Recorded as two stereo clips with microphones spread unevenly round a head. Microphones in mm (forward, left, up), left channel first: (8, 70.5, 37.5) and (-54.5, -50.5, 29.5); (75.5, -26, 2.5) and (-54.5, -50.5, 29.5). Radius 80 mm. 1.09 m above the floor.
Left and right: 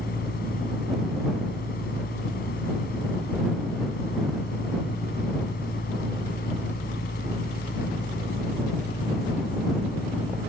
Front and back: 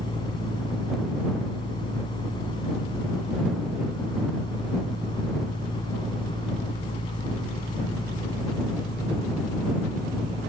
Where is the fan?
75° left.